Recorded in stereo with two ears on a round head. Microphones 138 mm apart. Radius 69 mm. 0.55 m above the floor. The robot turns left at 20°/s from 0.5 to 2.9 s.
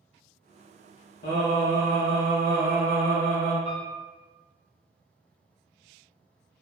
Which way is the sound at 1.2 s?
110° left.